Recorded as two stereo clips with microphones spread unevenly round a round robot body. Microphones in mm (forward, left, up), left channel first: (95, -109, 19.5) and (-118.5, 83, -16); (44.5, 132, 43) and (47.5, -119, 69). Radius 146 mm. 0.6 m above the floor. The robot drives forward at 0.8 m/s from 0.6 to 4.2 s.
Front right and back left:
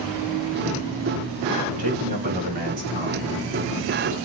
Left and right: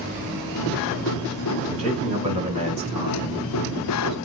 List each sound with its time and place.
1.7 s a man speaking: 155° right, 5 m; by 4.2 s 165° right, 7 m